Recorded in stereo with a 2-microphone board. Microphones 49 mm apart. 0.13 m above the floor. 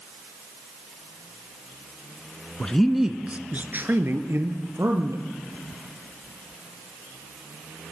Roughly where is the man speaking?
Centre.